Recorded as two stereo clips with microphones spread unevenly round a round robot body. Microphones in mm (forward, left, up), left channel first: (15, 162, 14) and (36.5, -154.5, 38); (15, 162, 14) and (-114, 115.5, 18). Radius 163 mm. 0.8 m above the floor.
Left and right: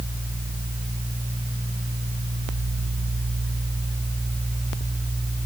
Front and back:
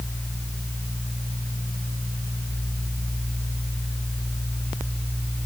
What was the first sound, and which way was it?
Only background noise.